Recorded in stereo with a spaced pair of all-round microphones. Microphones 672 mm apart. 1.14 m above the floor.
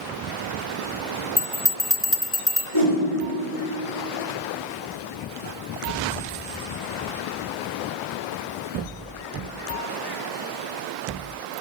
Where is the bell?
20° left (ahead or behind), 0.5 m.